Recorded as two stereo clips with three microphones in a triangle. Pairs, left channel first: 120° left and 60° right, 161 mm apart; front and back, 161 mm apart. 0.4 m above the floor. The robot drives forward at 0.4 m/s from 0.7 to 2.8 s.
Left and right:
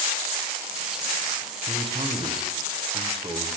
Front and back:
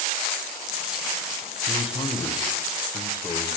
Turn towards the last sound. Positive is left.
turn(degrees=-50)